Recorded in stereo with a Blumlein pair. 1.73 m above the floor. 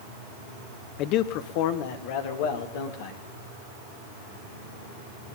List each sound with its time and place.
1.0 s a man speaking: 40° left, 0.8 m; by 3.2 s 50° left, 3 m